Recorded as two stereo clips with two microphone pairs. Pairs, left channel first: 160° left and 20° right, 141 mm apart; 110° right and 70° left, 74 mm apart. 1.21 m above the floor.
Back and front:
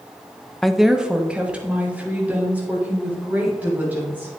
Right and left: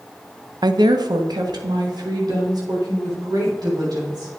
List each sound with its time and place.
0.6 s a woman speaking: 75° left, 0.6 m; by 4.3 s 55° left, 5.5 m